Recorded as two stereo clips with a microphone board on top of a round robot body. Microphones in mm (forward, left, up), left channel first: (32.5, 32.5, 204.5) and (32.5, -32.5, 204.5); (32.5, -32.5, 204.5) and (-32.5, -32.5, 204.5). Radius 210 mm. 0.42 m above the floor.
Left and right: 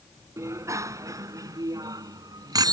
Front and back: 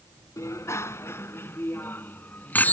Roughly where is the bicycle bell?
Ahead right.